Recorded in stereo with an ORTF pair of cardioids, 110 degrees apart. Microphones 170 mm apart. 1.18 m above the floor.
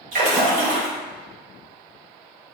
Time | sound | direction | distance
0.1 | a splash | 55° right | 1.9 m